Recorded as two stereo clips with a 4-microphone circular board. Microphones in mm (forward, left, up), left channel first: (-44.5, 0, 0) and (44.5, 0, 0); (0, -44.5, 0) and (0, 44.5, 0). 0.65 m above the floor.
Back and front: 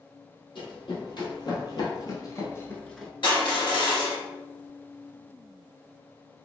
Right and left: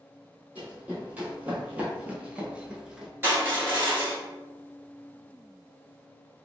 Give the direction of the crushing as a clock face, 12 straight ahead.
7 o'clock.